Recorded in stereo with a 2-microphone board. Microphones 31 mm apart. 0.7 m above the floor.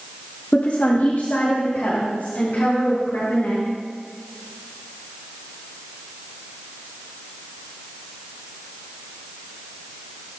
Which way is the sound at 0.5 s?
60° left (ahead or behind).